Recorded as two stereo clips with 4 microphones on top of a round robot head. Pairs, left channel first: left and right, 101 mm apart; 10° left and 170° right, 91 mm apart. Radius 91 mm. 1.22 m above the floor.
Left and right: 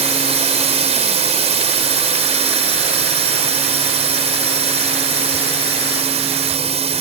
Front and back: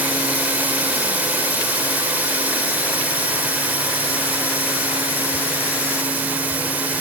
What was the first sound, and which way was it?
A drone, 95° right.